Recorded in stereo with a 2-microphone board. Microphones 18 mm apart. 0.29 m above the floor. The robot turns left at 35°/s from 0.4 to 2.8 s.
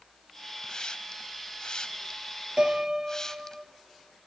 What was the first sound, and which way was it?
A hiss, 45° left (ahead or behind).